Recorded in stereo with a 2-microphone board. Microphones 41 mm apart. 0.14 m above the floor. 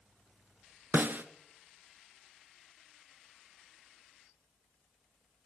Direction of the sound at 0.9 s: 50° right (ahead or behind).